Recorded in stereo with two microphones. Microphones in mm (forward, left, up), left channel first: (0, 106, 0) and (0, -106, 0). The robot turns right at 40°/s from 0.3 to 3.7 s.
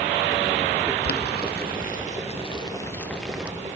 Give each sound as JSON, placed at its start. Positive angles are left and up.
{"t": 1.0, "sound": "boiling", "side_deg": 50, "distance_m": 0.6}